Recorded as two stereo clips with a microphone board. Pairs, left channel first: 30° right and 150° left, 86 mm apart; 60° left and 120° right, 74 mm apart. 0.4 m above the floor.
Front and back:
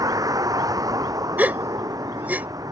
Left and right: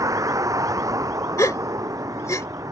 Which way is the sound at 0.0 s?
165° right.